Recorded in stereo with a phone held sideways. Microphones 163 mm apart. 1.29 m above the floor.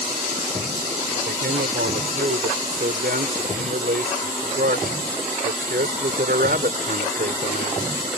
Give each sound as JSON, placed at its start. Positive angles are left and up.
{"t": 1.2, "sound": "a man speaking", "side_deg": -75}